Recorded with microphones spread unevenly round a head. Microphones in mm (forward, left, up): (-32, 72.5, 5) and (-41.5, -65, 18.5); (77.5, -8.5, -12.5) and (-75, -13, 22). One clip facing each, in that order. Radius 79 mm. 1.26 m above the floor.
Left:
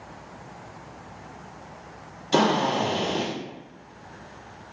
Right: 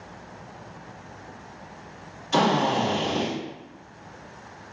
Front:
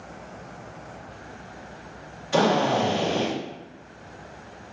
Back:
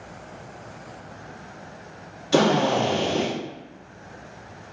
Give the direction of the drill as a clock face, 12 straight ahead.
7 o'clock.